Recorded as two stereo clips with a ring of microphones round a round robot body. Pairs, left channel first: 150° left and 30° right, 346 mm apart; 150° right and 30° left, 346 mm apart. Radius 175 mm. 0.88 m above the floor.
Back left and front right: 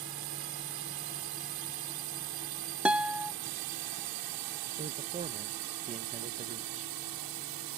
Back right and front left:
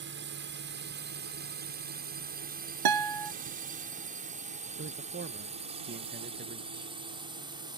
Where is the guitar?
55° left.